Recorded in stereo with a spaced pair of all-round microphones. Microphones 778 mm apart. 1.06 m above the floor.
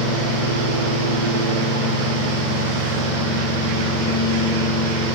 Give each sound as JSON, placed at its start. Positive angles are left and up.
{"t": 0.0, "sound": "a fan", "side_deg": -75, "distance_m": 2.0}